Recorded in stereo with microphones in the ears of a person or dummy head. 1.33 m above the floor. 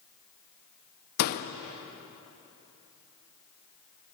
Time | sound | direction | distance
1.2 | a door slam | 55° left (ahead or behind) | 0.9 m